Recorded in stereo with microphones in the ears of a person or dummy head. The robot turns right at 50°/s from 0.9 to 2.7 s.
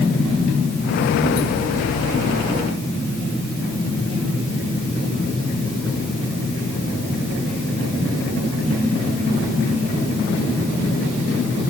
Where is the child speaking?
I don't hear a child speaking.